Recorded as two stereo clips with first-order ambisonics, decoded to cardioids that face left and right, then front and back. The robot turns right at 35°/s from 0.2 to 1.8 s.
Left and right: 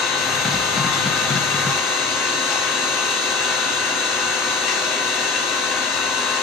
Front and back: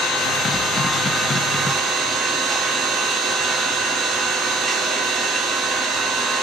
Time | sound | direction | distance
0.0 | an engine running | 60° left | 1.9 m